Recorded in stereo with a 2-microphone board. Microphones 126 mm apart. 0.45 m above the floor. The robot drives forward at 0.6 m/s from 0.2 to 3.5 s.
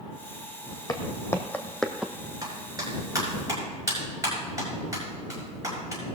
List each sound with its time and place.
0.9 s footsteps: 30° left (ahead or behind), 1.3 m; by 2.1 s 10° right (ahead or behind), 0.9 m
2.4 s a clap: 30° right (ahead or behind), 5 m